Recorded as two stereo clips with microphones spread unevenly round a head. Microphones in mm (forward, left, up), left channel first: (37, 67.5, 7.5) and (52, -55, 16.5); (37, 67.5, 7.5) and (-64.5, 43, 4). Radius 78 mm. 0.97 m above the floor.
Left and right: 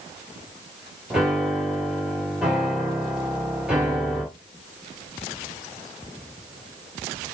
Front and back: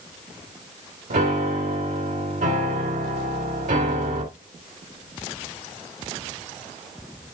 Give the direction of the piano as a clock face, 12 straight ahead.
6 o'clock.